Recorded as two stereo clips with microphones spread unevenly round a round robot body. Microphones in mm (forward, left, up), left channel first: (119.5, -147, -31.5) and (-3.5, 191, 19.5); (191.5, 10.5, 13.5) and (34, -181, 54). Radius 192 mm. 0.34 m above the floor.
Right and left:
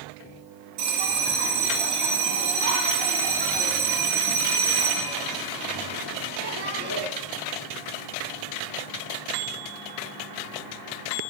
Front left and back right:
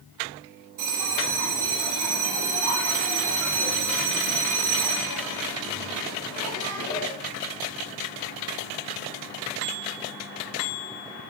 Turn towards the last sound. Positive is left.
turn(degrees=175)